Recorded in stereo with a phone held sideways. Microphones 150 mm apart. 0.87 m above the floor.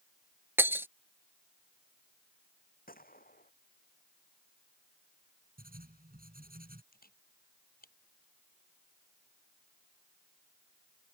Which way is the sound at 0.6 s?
15° right (ahead or behind).